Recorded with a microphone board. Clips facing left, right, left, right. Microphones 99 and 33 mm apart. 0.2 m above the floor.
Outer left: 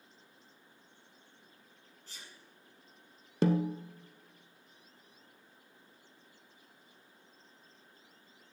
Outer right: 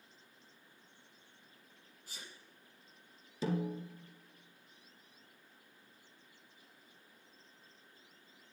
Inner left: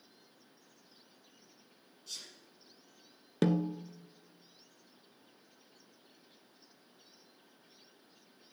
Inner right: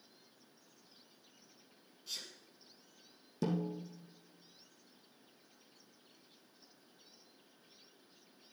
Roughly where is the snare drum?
Left.